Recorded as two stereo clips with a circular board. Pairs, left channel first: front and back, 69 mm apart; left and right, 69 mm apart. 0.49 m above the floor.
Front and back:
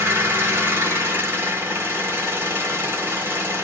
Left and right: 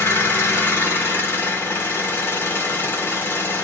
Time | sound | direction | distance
0.0 | an engine running | 135° left | 1.0 m